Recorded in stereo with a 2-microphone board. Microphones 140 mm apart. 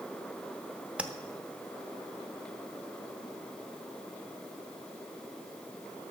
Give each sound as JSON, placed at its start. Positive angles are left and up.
{"t": 1.0, "sound": "tapping", "side_deg": -10, "distance_m": 0.8}